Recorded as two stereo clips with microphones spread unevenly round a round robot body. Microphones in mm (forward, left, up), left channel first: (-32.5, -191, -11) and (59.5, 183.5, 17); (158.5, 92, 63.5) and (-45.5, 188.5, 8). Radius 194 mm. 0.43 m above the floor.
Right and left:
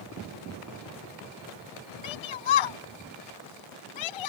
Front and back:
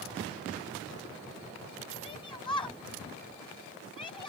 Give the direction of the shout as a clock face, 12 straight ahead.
3 o'clock.